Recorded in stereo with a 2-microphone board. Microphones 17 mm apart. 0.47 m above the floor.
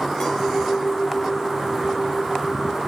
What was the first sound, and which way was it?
A clink, 35° left (ahead or behind).